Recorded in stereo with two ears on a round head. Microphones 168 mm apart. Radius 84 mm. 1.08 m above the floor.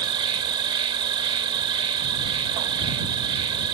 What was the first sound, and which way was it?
An insect, 25° right (ahead or behind).